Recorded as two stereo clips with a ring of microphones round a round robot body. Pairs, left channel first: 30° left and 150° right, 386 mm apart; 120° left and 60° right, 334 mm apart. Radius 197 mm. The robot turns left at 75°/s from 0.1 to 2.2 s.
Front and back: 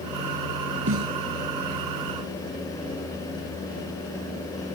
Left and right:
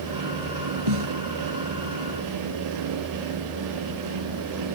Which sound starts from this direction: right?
A snare drum, at 0.9 s.